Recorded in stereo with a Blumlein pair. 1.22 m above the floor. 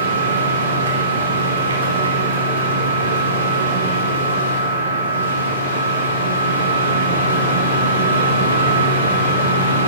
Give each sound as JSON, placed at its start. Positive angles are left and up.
{"t": 0.0, "sound": "a machine running", "azimuth_deg": -70, "distance_m": 1.3}